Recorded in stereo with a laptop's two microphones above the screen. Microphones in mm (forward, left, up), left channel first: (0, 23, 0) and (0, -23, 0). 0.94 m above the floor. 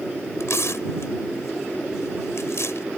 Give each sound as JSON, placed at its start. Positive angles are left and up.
{"t": 0.4, "sound": "tearing paper", "side_deg": 85}